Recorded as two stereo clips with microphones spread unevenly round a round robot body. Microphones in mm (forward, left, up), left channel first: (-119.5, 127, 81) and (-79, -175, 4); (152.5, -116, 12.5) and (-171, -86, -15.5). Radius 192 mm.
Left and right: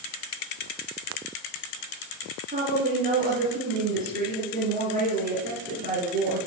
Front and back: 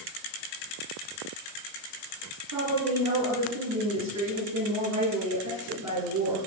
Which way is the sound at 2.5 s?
145° right.